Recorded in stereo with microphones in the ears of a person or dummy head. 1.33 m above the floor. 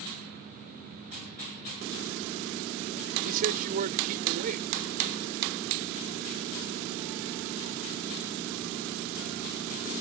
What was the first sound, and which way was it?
A man speaking, 45° right (ahead or behind).